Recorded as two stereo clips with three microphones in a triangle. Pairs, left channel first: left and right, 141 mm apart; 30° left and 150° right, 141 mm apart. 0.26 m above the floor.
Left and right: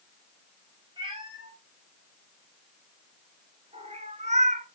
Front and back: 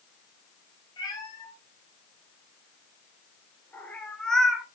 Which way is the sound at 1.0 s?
30° right.